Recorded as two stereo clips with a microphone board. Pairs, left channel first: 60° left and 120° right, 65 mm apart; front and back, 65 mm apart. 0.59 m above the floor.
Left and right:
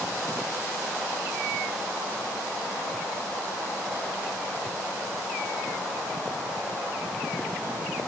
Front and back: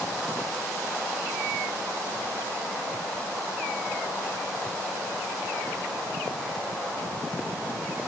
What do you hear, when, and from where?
Only background noise.